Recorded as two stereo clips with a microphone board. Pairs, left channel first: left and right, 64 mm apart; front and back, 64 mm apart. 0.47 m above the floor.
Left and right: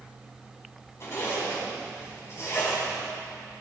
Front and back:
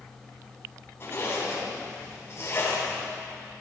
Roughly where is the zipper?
Ahead left.